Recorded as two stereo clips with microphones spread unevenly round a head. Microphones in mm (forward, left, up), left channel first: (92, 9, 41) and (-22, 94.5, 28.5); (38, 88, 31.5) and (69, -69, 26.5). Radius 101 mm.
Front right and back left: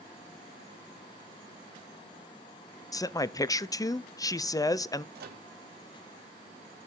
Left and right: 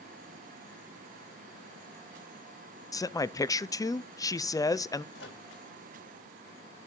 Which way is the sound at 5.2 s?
140° left.